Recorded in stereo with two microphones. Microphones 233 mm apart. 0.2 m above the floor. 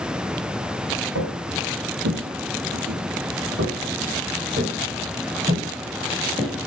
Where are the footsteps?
80° right, 1.5 m; by 6.6 s 20° right (ahead or behind), 3 m.